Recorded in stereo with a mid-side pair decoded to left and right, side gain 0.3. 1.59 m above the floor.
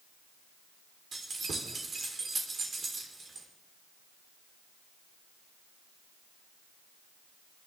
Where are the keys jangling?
65° right, 3.5 m.